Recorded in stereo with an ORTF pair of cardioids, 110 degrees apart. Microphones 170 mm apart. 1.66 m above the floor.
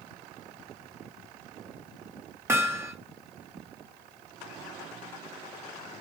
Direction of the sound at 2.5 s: 15° right.